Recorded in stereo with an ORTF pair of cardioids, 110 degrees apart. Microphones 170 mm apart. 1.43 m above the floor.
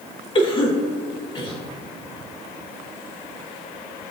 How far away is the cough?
About 2.5 m.